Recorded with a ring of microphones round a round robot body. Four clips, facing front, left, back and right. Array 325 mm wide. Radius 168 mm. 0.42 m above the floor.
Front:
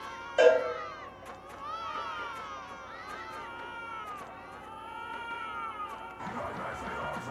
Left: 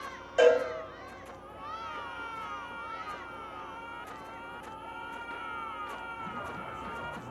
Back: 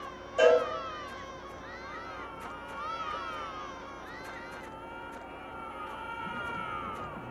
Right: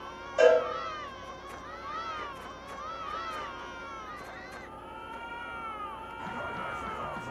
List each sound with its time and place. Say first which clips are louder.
0.4 s a cowbell: right 1 dB, front 1 dB; 40° left, 1.5 m